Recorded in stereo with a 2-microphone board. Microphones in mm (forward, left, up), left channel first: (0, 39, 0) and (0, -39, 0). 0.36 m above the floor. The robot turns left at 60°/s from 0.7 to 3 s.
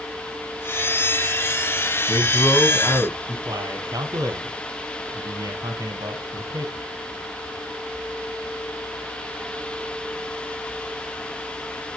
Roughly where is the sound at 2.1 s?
Left.